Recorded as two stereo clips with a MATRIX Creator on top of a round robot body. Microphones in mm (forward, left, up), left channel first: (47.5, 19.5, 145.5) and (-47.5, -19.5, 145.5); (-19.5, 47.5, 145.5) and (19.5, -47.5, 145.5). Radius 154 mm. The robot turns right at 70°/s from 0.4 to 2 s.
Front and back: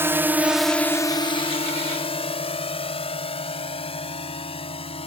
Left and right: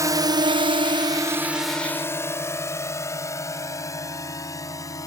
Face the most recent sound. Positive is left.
turn(degrees=55)